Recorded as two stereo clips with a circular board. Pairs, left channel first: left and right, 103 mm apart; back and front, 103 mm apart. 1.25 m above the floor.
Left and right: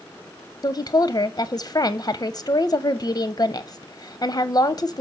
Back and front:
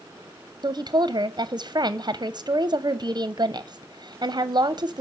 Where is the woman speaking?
45° left, 0.5 m.